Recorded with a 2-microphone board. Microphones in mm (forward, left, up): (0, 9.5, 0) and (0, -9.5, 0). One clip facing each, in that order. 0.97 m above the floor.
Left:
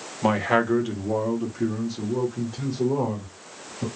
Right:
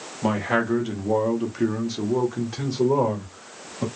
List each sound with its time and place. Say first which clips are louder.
0.2 s a man speaking: left 2 dB; 20° left (ahead or behind), 1.0 m; by 3.9 s 70° right (ahead or behind), 1.8 m